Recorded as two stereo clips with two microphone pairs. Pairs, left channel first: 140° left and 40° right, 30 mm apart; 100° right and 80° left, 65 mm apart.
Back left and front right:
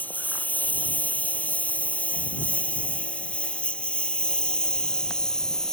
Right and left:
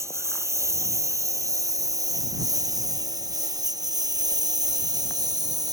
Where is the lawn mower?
120° left; by 5.7 s 70° left.